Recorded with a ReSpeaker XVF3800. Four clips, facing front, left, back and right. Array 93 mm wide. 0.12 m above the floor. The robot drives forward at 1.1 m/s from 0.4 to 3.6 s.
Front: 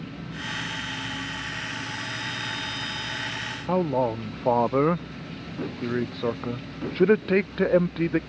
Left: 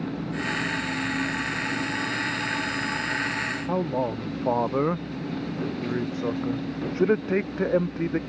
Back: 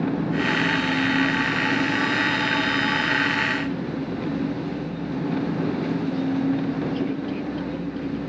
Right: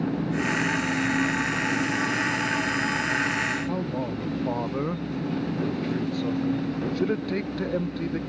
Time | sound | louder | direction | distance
0.0 | an engine running | right 4 dB, back 13 dB | 165° right | ?
3.7 | a man speaking | left 3 dB, front 4 dB | 25° left | ?